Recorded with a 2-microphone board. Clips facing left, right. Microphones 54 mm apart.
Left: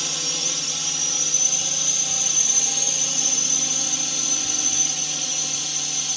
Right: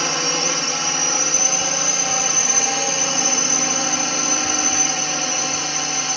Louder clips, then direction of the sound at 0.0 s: Right 10 dB; 50° right (ahead or behind).